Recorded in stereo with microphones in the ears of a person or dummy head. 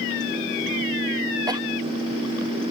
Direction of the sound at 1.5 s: 25° right (ahead or behind).